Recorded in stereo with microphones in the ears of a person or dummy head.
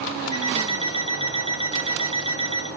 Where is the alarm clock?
35° right (ahead or behind), 0.9 m.